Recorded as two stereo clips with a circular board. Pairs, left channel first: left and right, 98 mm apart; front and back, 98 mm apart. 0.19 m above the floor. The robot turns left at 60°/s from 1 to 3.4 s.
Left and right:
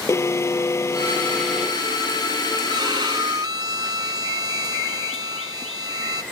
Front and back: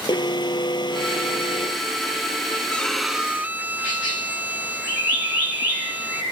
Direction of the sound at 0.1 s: 30° left.